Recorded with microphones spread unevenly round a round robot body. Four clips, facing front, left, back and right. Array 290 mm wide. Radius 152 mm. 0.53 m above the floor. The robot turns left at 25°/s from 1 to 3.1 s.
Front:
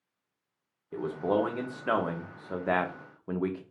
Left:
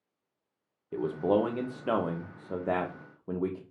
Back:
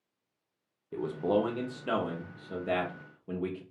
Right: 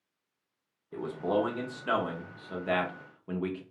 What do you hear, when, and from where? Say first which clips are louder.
0.9 s a man speaking: left 3 dB, front 1 dB; 95° left, 0.8 m; by 3.6 s 45° left, 0.8 m